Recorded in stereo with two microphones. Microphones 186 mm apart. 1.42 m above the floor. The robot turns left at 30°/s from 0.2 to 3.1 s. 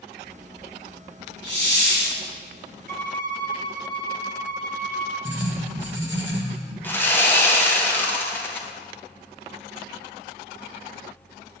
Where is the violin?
50° right (ahead or behind), 1.2 m; by 5.2 s 45° right (ahead or behind), 1.2 m.